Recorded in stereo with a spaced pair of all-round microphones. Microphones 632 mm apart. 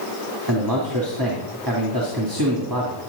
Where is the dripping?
I don't hear dripping.